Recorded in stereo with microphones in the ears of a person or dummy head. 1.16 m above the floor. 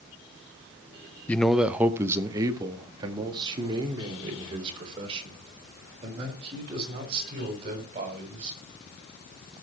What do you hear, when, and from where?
1.3 s a man speaking: 10° left (ahead or behind), 0.6 m; by 8.6 s 35° right (ahead or behind), 7 m